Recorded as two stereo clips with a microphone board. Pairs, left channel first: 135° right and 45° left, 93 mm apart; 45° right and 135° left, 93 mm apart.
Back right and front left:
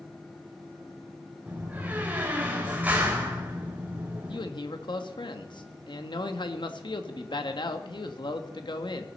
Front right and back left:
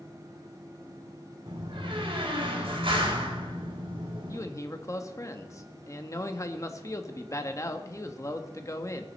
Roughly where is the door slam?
Behind left.